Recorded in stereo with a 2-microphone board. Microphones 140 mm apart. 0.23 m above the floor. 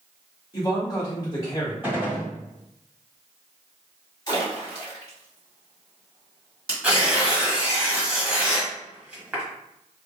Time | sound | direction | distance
0.5 | a man speaking | 30° left (ahead or behind) | 1.3 m
1.8 | a gunshot | 15° right (ahead or behind) | 1.5 m
4.3 | a splash | 30° left (ahead or behind) | 1.8 m
6.8 | tearing paper | 10° right (ahead or behind) | 1.1 m